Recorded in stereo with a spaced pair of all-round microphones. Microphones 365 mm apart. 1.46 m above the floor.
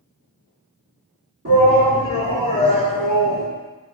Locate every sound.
1.4 s a shout: 45° right (ahead or behind), 2.0 m; by 3.5 s 70° right (ahead or behind), 0.9 m